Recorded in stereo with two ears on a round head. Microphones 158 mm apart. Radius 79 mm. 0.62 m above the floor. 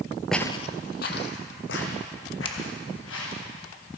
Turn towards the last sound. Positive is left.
turn(degrees=30)  # may be behind; listen again after turning